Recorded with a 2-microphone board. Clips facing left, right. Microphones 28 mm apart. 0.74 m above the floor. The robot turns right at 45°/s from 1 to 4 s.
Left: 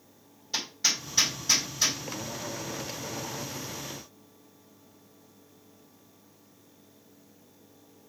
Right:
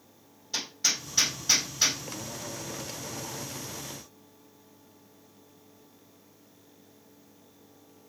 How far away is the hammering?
About 3.5 m.